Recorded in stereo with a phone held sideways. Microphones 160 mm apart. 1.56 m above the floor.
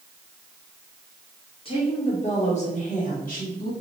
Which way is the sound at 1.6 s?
35° left (ahead or behind).